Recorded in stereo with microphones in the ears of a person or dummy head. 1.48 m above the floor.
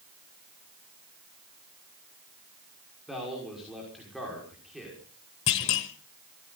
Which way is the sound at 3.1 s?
5° right (ahead or behind).